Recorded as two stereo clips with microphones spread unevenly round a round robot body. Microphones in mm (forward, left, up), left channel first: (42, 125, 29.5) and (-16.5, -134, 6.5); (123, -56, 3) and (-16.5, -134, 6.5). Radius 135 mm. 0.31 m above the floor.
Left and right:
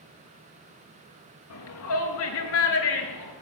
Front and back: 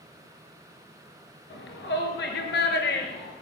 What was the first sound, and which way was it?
A shout, 45° left.